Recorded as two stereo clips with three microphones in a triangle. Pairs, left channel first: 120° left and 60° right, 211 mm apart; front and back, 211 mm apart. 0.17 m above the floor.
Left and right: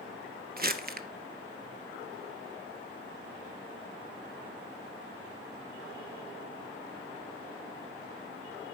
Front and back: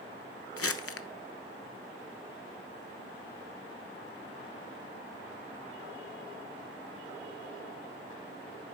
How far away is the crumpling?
About 0.6 m.